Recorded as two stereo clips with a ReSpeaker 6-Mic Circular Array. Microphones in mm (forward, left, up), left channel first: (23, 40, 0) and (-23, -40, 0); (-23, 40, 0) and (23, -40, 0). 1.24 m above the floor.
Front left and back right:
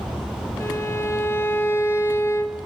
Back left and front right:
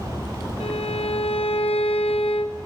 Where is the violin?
125° left, 1.3 m.